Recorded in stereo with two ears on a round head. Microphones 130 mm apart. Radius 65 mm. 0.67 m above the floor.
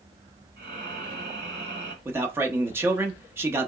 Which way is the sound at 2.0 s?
15° right (ahead or behind).